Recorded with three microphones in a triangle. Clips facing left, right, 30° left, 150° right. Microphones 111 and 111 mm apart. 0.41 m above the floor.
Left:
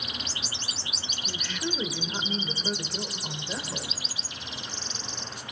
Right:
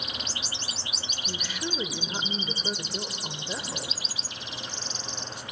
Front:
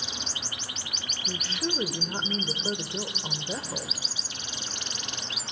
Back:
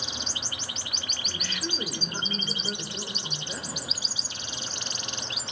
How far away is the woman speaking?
About 1.3 m.